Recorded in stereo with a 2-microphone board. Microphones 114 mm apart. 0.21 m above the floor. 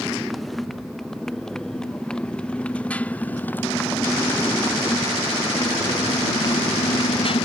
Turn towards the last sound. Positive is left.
turn(degrees=55)  # may be behind; listen again after turning